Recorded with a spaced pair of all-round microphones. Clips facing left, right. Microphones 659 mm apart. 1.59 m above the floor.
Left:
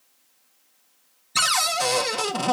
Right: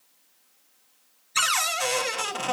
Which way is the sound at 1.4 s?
70° left (ahead or behind).